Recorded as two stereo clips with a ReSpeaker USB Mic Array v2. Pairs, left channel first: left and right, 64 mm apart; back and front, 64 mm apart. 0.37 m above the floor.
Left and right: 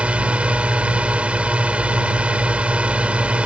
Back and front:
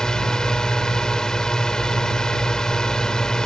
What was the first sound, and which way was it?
A drone, 120° right.